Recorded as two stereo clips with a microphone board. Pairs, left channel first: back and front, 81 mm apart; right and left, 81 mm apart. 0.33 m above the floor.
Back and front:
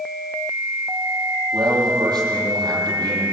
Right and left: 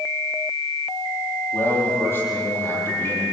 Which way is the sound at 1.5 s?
30° right.